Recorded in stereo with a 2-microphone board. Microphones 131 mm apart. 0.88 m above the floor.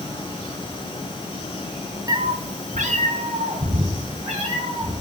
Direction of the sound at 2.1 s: 25° right (ahead or behind).